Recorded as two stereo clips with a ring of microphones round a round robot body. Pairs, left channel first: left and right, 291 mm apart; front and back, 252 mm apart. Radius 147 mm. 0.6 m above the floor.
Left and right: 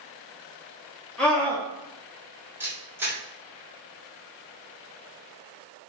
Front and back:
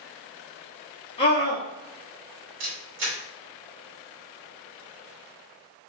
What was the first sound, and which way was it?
A scream, 10° left.